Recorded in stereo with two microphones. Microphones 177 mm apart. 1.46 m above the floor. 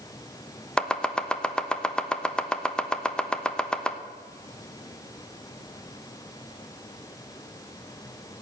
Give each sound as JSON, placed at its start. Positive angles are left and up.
{"t": 0.8, "sound": "chopping", "side_deg": 5, "distance_m": 0.9}